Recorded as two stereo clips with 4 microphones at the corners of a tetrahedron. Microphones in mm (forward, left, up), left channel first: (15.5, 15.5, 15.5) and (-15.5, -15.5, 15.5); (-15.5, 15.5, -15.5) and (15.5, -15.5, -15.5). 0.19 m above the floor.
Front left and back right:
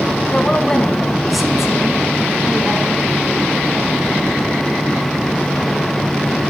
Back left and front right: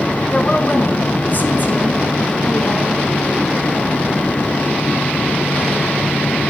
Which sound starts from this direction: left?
A woman speaking, at 0.3 s.